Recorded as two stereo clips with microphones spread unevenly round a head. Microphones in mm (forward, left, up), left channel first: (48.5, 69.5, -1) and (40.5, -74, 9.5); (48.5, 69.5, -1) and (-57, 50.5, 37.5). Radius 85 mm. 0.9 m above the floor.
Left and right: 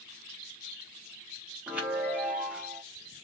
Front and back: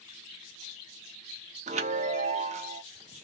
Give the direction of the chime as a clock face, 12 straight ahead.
6 o'clock.